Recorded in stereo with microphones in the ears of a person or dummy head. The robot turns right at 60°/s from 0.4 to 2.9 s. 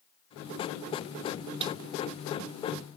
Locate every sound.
1.6 s a snare drum: 30° right (ahead or behind); by 1.8 s 20° right (ahead or behind)